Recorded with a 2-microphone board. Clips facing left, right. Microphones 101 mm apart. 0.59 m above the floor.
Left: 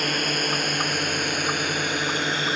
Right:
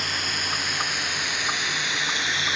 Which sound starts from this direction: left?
A drone, at 0.0 s.